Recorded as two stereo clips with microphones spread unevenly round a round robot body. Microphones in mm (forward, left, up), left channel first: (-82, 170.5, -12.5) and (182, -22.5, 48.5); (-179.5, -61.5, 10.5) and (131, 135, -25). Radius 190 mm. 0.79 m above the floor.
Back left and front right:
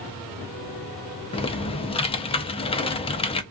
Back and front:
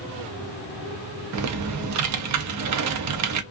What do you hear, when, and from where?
1.3 s typing on a keyboard: 75° left, 0.6 m